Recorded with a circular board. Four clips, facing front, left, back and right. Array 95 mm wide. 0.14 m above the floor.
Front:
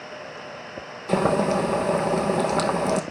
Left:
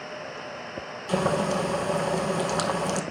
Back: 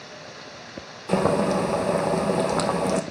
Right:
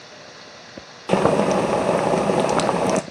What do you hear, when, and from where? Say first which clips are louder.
1.1 s boiling: right 7 dB, even; 90° right, 0.7 m